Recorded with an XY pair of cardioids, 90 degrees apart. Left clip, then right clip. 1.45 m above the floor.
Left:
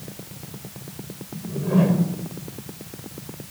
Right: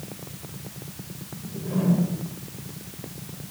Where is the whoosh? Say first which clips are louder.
Left 8 dB; 65° left, 4.5 m.